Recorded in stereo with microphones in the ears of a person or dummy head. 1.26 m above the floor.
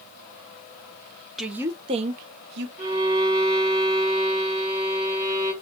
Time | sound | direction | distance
1.4 | a woman speaking | centre (ahead or behind) | 0.9 m
2.8 | a violin | 20° right (ahead or behind) | 2.5 m